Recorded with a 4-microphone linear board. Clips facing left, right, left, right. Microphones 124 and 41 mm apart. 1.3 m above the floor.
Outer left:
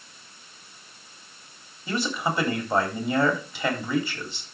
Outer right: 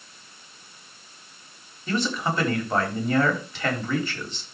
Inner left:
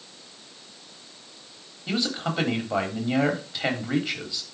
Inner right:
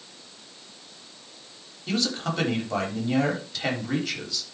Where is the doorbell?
I don't hear a doorbell.